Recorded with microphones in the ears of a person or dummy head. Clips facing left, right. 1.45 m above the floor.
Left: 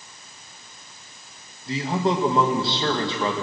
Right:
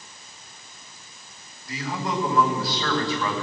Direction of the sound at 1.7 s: 20° left (ahead or behind).